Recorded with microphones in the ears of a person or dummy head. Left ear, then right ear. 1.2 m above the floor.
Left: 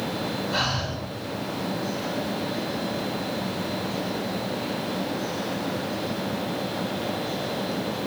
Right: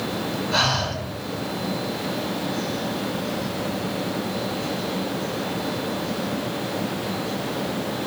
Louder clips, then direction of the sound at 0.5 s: Right 6 dB; 5° right (ahead or behind).